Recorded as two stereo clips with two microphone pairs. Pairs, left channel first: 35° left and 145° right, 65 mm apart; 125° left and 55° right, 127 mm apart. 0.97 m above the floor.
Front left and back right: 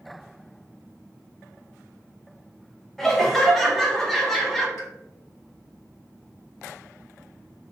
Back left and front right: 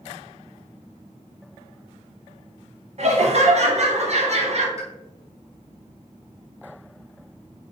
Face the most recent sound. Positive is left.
turn(degrees=5)